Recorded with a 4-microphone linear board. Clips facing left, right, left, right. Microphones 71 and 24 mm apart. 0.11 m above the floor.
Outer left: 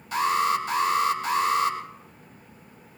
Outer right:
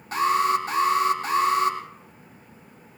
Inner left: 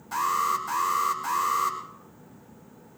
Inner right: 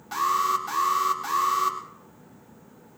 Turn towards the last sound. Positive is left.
turn(degrees=-45)  # may be behind; listen again after turning